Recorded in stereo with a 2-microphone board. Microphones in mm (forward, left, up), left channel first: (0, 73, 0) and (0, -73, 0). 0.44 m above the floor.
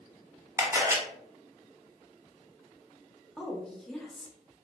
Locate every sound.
0.6 s a camera shutter: 20° right (ahead or behind), 0.9 m
3.4 s a woman speaking: 5° left (ahead or behind), 0.8 m